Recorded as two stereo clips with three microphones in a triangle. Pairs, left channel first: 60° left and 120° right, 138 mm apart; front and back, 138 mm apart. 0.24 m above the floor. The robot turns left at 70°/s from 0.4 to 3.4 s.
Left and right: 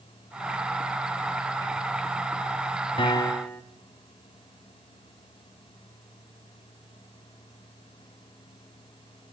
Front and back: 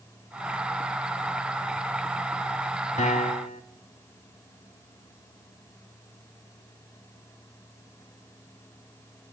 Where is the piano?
15° left, 0.8 m; by 3.6 s 15° right, 0.8 m.